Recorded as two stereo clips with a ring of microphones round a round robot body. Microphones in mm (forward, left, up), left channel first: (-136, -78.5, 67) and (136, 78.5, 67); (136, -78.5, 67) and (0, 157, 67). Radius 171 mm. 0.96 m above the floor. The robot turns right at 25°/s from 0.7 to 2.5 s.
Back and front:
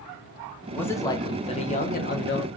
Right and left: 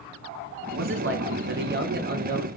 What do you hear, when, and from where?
0.8 s a man speaking: 125° left, 0.9 m; by 2.5 s 170° left, 0.9 m